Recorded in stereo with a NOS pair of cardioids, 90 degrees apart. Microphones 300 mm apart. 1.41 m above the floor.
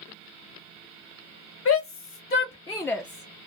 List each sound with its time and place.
1.6 s a shout: 50° left, 1.0 m; by 3.5 s 35° right, 0.5 m